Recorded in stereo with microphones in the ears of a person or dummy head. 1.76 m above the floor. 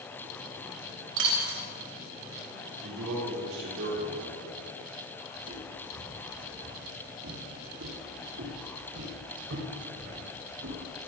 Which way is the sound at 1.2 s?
75° right (ahead or behind).